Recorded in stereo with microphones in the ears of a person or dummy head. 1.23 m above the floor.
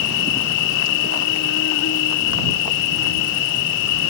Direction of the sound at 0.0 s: 70° left (ahead or behind).